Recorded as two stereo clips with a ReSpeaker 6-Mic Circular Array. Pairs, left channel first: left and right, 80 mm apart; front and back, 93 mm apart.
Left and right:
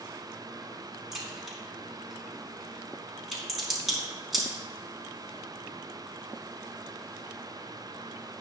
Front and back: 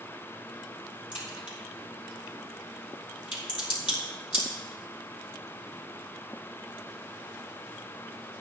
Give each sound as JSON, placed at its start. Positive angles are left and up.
{"t": 1.1, "sound": "a crack", "azimuth_deg": 0, "distance_m": 4.5}